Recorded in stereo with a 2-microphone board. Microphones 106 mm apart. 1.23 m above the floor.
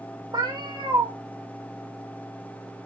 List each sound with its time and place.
0.3 s a cat meowing: 40° right (ahead or behind), 0.9 m